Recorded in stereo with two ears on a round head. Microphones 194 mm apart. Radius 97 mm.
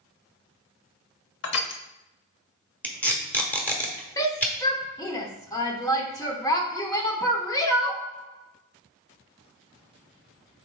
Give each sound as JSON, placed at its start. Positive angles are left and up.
{"t": 1.4, "sound": "crushing", "side_deg": 55, "distance_m": 0.8}
{"t": 2.8, "sound": "tape being pulled", "side_deg": 5, "distance_m": 1.2}
{"t": 4.2, "sound": "a shout", "side_deg": 15, "distance_m": 0.9}